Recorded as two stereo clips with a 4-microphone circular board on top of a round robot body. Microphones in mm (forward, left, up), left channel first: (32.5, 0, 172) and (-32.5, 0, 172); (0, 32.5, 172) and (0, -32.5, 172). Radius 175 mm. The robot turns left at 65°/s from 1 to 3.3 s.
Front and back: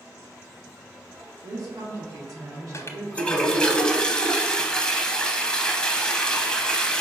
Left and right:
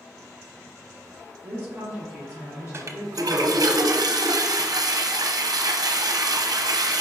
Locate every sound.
1.4 s a woman speaking: 135° right, 2 m; by 3.6 s 105° left, 2 m
2.7 s a toilet flushing: 40° right, 0.7 m; by 7.0 s 75° right, 0.7 m